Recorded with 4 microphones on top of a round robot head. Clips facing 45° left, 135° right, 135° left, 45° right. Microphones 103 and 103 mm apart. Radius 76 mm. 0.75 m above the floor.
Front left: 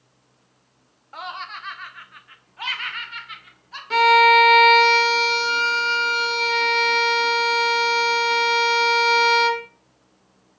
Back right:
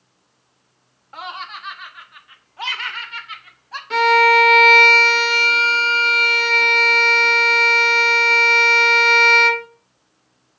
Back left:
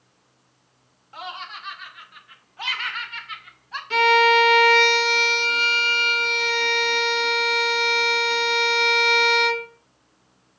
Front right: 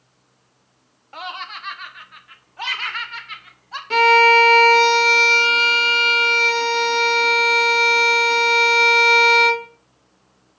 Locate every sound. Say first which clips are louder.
1.1 s laughter: back right 1 dB, front right 3 dB; 45° right, 1.3 m; by 3.8 s 95° right, 2.0 m
3.9 s a violin: even, front right 4 dB; 45° right, 1.0 m